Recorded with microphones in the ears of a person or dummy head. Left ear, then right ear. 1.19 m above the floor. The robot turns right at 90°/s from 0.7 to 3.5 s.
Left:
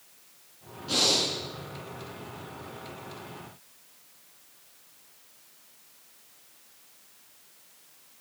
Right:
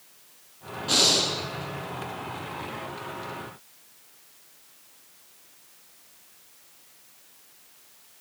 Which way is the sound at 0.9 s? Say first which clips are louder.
Right 3 dB; 150° right.